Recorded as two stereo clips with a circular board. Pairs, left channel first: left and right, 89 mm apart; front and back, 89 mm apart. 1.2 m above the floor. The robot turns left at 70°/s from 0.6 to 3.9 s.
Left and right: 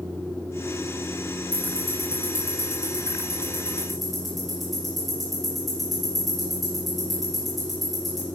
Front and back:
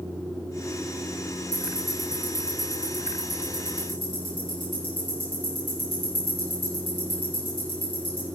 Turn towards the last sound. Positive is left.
turn(degrees=0)